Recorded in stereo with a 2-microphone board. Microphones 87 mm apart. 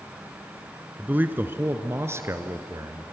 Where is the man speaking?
20° right (ahead or behind), 1.1 m; by 3.0 s 35° right (ahead or behind), 1.9 m.